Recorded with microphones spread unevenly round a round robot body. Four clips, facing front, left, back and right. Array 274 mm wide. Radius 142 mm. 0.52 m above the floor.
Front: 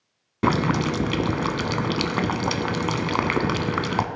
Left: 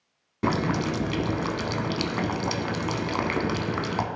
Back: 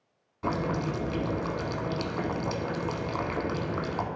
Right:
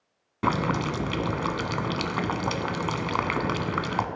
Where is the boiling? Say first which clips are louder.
Even, front 8 dB; 10° left, 0.8 m.